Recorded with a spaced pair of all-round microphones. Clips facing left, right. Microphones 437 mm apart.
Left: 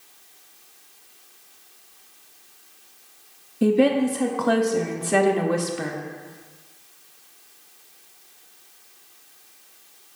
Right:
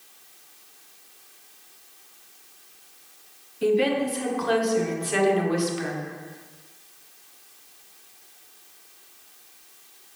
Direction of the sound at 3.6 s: 65° left (ahead or behind).